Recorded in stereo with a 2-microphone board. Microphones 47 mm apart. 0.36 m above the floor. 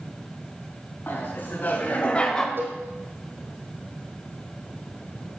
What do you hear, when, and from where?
1.1 s laughter: 50° left (ahead or behind), 3 m; by 2.5 s 10° left (ahead or behind), 1.5 m
2.6 s a cowbell: 55° right (ahead or behind), 4.5 m